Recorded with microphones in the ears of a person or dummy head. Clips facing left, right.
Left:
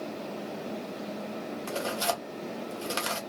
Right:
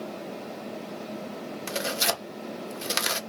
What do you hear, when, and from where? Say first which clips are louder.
1.7 s tearing paper: right 1 dB; 25° right (ahead or behind), 0.8 m